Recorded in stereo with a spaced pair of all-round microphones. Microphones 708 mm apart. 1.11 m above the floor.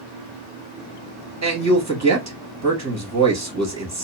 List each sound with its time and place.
1.4 s a man speaking: 25° right (ahead or behind), 0.9 m